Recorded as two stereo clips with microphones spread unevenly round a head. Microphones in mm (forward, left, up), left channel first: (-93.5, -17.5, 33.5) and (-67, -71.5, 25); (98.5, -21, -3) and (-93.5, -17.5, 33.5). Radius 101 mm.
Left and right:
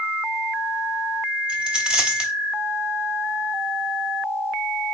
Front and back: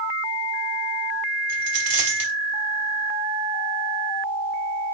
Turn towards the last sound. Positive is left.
turn(degrees=-140)